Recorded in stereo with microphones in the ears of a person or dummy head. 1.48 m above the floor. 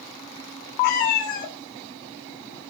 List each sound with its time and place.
0.8 s a cat meowing: 65° left (ahead or behind), 1.9 m